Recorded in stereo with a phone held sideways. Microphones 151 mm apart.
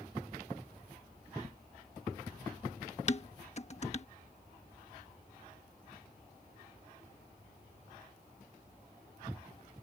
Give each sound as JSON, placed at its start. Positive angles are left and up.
{"t": 3.1, "sound": "dishes clattering", "side_deg": 45}